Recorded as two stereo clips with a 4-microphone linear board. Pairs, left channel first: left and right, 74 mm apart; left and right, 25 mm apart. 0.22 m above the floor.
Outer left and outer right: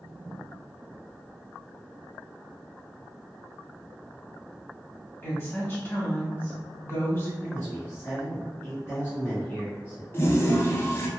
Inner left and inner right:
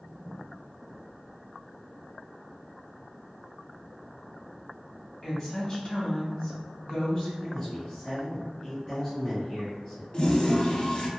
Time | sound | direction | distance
5.2 | a woman speaking | 25° left (ahead or behind) | 1.0 m
7.4 | a man speaking | 20° left (ahead or behind) | 1.3 m
10.1 | a toilet flushing | 30° left (ahead or behind) | 0.5 m